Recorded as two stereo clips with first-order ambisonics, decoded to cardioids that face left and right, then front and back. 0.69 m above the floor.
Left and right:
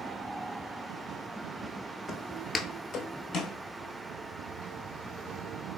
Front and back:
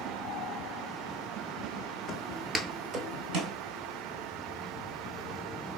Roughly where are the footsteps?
Ahead.